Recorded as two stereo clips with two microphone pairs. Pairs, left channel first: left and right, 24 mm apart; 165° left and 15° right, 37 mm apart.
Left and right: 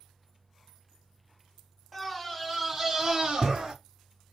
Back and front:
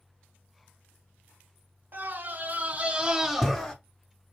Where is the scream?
5° right, 1.3 m; by 3.8 s 125° right, 0.9 m.